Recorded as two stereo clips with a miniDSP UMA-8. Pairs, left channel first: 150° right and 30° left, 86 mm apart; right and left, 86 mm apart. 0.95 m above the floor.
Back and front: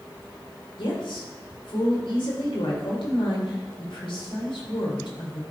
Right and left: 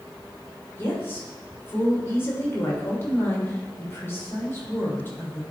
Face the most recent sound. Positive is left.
turn(degrees=-155)